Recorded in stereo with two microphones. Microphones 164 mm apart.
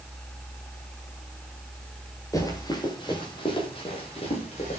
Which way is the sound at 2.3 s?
20° left (ahead or behind).